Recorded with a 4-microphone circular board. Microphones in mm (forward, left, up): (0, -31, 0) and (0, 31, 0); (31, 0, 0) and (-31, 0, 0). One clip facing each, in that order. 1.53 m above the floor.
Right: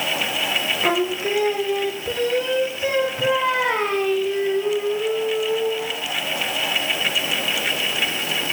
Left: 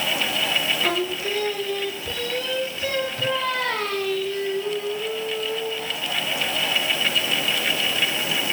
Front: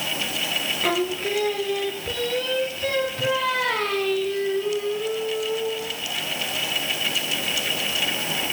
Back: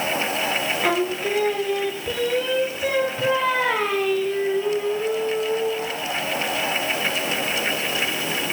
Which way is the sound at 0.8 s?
120° right.